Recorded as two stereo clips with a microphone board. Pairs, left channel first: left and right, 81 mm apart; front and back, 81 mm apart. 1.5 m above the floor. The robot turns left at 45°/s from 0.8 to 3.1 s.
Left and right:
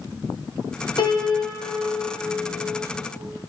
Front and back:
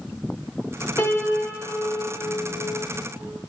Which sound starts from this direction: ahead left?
A piano, at 1.0 s.